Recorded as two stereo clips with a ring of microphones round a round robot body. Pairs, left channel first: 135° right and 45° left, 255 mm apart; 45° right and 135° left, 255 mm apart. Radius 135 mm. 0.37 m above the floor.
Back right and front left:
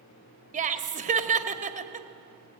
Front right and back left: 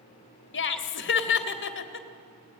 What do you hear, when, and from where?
0.5 s laughter: 10° right, 1.4 m